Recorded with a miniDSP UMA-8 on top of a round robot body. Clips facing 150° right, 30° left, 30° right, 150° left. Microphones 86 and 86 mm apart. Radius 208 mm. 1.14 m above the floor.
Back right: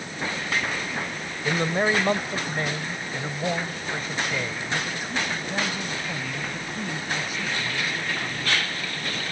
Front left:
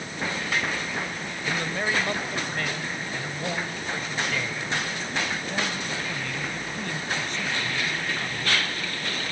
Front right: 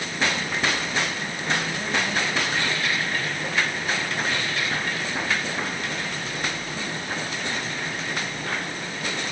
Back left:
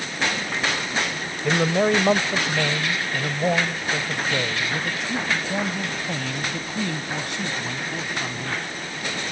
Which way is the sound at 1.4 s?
150° left.